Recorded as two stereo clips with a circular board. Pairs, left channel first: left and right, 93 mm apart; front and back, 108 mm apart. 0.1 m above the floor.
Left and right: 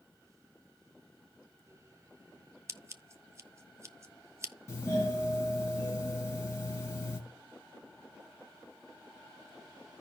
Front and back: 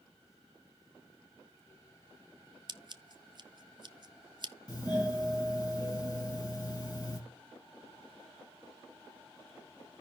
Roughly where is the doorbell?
Ahead left.